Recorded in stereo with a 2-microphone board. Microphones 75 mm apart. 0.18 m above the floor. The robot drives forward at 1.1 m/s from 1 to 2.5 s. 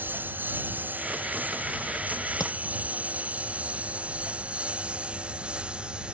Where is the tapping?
55° left (ahead or behind).